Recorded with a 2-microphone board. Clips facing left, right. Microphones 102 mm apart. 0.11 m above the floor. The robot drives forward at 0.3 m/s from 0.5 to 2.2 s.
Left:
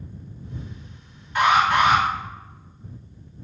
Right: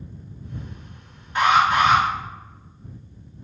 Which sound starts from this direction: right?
An alarm, at 1.4 s.